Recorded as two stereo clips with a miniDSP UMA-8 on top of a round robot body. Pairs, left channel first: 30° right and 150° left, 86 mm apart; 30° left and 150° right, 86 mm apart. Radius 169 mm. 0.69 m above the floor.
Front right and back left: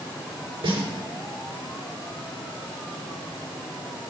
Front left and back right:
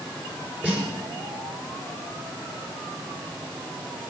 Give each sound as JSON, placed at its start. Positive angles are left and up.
{"t": 0.6, "sound": "a snare drum", "azimuth_deg": 130, "distance_m": 4.0}